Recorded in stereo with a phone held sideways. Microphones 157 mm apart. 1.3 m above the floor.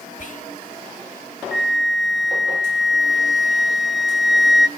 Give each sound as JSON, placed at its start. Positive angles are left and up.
{"t": 0.2, "sound": "whispering", "side_deg": 55, "distance_m": 1.9}
{"t": 1.5, "sound": "a flute", "side_deg": 0, "distance_m": 0.8}